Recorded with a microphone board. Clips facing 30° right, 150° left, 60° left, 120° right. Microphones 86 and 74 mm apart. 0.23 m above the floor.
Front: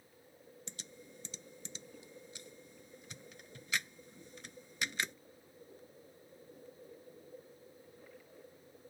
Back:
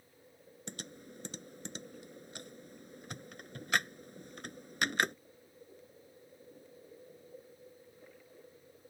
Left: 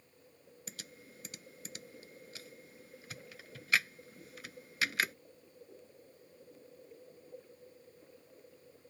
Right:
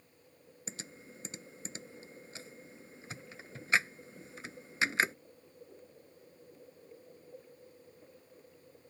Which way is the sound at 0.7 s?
Straight behind.